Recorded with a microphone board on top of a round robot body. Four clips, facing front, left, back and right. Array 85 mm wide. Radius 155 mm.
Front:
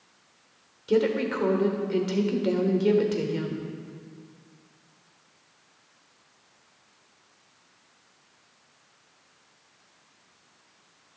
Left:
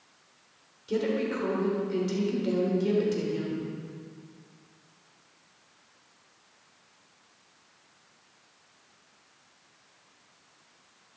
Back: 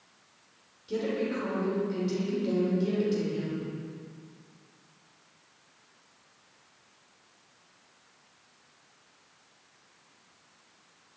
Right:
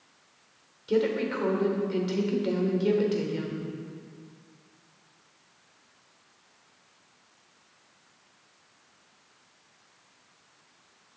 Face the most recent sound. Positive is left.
turn(degrees=-20)